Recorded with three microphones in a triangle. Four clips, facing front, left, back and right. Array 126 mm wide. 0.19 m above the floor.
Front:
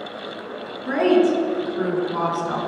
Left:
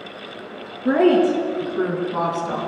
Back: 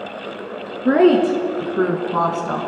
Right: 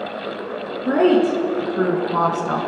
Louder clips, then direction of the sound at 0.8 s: Even, back 4 dB; 175° left.